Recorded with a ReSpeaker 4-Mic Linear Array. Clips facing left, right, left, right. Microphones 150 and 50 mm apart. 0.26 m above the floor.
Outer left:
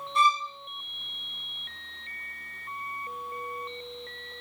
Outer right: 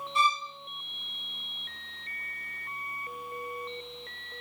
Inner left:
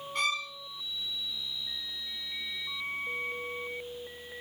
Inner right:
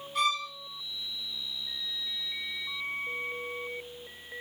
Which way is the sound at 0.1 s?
5° right (ahead or behind).